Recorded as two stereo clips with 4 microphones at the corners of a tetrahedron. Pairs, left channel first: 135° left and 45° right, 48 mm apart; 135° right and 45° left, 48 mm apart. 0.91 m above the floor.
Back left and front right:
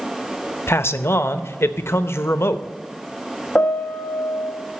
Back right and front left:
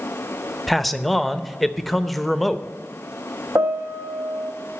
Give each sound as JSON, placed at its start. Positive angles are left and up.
{"t": 0.7, "sound": "a man speaking", "azimuth_deg": 135, "distance_m": 0.6}
{"t": 3.5, "sound": "a piano", "azimuth_deg": 75, "distance_m": 0.7}